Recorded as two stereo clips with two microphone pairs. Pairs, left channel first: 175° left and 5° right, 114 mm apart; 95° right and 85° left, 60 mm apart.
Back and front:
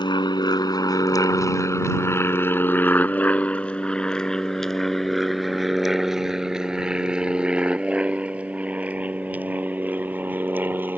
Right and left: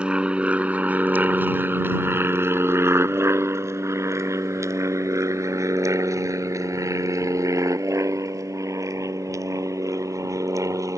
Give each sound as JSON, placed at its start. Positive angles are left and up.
{"t": 0.0, "sound": "an aircraft", "azimuth_deg": 150}